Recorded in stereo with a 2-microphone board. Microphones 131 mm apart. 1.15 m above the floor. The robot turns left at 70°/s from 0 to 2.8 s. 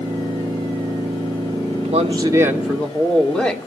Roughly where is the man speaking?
Right.